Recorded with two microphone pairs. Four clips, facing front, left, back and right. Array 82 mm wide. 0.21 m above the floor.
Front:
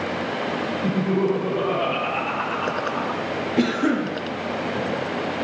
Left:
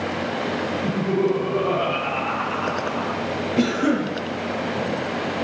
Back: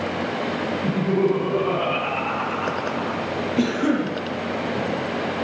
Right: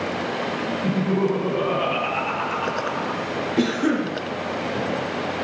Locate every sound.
0.8 s laughter: 145° right, 1.9 m; by 3.2 s 40° right, 1.5 m
3.6 s a cough: 55° left, 1.1 m